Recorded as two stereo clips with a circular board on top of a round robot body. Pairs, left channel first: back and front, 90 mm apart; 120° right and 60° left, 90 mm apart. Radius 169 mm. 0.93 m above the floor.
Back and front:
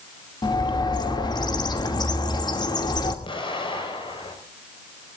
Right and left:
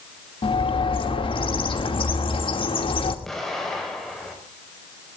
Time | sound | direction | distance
0.4 | a bird | 140° right | 2.5 m
3.2 | an explosion | 155° left | 5 m